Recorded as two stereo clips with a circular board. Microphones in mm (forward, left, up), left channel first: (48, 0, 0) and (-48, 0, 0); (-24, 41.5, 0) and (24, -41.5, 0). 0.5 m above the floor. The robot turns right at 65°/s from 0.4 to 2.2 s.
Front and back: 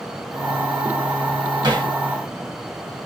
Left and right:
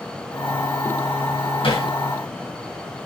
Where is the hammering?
135° left, 3 m; by 1.9 s 155° left, 3 m.